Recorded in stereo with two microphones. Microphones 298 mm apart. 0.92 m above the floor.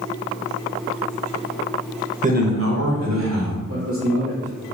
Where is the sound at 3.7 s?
50° right (ahead or behind), 1.3 m.